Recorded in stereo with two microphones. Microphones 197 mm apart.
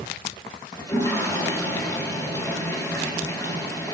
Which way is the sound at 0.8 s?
20° left (ahead or behind).